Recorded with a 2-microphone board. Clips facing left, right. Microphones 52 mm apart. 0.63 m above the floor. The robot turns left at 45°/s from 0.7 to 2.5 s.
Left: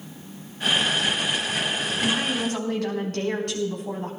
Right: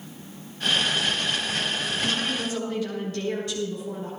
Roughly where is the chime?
No chime in this recording.